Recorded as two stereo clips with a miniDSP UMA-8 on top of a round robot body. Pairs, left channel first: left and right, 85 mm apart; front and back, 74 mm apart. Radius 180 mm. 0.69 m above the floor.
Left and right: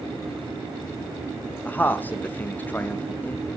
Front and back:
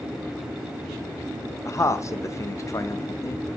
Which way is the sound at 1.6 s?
25° left.